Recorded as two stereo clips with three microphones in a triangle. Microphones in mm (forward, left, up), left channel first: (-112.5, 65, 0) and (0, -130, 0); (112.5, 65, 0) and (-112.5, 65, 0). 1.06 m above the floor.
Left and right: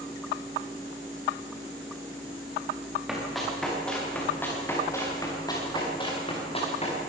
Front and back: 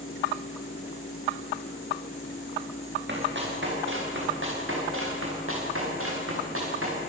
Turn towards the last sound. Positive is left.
turn(degrees=180)